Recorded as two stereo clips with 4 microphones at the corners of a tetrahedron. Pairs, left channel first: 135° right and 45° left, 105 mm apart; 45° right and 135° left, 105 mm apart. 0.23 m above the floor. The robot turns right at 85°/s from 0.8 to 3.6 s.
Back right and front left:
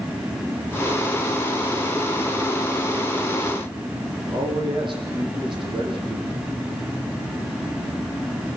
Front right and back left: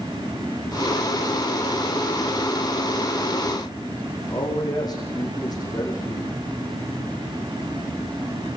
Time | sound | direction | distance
4.3 | a man speaking | 5° left | 9 m